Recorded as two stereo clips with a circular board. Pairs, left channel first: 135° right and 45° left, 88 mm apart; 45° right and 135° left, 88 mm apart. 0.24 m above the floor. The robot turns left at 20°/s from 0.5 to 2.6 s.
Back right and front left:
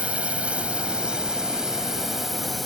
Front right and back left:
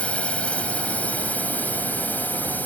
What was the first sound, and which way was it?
A drone, straight ahead.